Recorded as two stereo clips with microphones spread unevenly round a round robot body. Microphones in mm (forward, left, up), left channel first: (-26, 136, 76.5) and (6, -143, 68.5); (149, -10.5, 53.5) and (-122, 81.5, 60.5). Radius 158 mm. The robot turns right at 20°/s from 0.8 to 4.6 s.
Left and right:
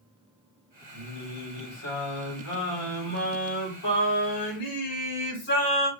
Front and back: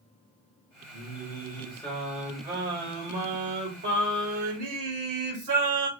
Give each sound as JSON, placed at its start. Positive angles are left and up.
{"t": 0.9, "sound": "singing", "azimuth_deg": 50, "distance_m": 3.0}